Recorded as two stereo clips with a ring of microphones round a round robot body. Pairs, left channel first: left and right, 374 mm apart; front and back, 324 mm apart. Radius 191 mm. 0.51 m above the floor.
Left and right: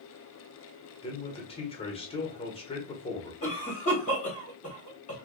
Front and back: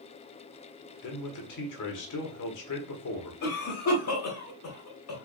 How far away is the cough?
About 1.5 m.